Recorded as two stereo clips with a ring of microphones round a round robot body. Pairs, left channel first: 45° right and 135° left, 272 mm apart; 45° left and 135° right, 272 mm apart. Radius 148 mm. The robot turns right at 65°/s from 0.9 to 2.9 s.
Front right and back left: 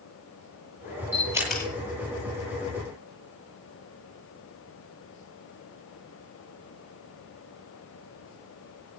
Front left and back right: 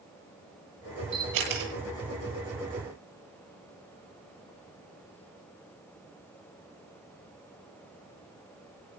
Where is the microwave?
No microwave in this recording.